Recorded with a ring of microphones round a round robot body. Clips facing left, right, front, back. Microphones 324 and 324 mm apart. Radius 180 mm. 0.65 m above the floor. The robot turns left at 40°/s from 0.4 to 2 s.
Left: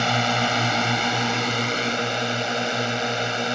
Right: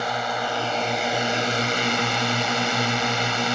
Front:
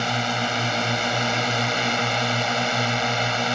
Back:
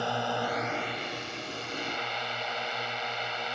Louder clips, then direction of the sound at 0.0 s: Left 4 dB, front 5 dB; 50° left.